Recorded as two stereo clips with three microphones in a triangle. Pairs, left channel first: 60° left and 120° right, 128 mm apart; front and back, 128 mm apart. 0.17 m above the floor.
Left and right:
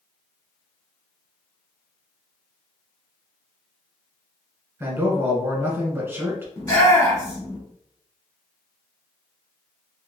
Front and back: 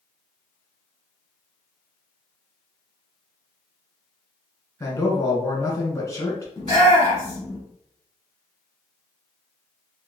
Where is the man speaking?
55° right, 1.5 m.